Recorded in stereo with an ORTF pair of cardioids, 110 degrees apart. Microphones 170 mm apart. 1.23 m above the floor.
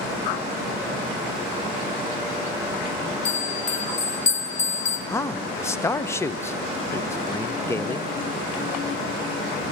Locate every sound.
3.2 s a bell: 45° left, 1.8 m
5.1 s a man speaking: 15° left, 0.9 m